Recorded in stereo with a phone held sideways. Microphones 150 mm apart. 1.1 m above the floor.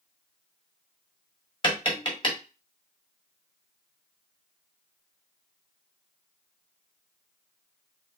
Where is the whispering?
No whispering in this recording.